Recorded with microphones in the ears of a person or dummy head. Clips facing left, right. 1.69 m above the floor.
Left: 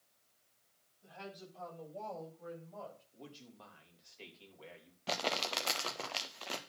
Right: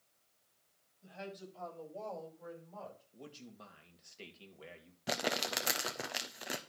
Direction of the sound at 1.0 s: 20° right (ahead or behind).